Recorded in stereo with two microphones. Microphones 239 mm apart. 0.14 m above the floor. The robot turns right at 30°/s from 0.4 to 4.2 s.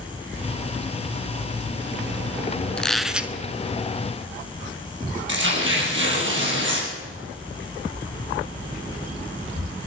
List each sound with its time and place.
2.8 s a squeak: 5° left (ahead or behind), 0.7 m; by 3.3 s 5° right (ahead or behind), 0.7 m
5.3 s tearing paper: 55° right (ahead or behind), 4.5 m